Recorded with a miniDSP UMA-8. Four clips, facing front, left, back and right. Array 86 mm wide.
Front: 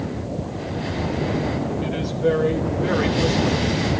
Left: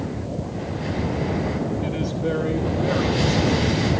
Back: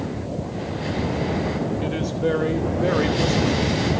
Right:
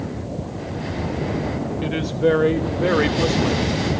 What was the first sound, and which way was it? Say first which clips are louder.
A woman speaking: right 5 dB, front 4 dB; 110° right.